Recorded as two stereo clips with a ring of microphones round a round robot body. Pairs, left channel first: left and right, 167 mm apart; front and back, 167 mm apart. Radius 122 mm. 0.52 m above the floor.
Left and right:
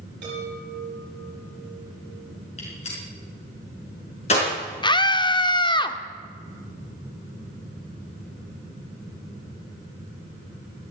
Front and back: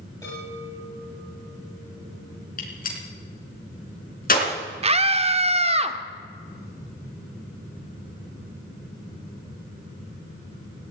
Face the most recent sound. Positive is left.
turn(degrees=145)